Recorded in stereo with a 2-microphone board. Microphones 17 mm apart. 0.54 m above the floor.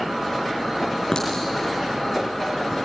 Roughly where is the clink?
Left.